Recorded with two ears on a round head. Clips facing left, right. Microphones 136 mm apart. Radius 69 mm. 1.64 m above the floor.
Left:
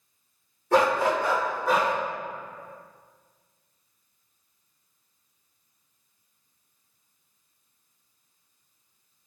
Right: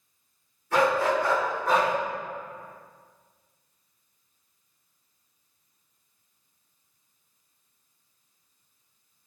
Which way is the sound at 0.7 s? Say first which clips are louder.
Left 1 dB; 35° left (ahead or behind).